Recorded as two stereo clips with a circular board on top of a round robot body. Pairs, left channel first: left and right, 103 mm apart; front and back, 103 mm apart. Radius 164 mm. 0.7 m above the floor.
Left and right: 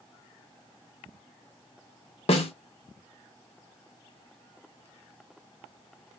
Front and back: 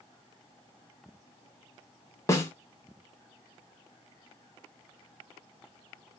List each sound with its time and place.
2.3 s a snare drum: 60° left, 0.8 m